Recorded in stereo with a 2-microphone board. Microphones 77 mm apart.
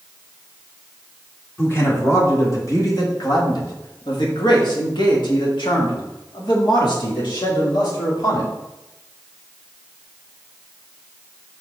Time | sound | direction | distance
1.6 | a man speaking | 30° left (ahead or behind) | 1.9 m